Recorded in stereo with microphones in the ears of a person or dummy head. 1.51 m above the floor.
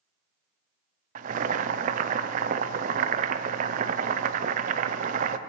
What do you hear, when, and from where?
1.1 s boiling: 40° right (ahead or behind), 0.5 m